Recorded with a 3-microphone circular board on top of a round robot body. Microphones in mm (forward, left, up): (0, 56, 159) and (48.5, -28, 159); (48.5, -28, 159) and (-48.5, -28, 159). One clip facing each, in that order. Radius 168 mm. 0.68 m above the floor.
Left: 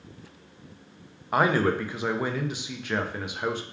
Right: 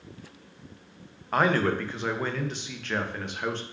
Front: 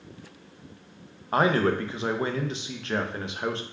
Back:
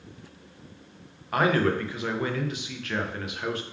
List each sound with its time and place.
1.3 s a man speaking: 45° left, 0.7 m